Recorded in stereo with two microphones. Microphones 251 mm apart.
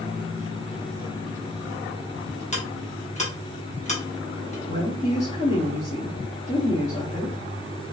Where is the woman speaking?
25° left (ahead or behind), 0.8 m.